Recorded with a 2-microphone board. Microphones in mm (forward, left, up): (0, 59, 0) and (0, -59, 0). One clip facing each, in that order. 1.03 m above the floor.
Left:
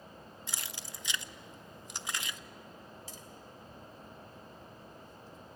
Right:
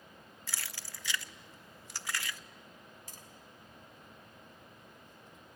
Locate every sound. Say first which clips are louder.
0.5 s keys jangling: even; 20° left (ahead or behind), 0.5 m
3.1 s tapping: left 4 dB; 55° right (ahead or behind), 2.5 m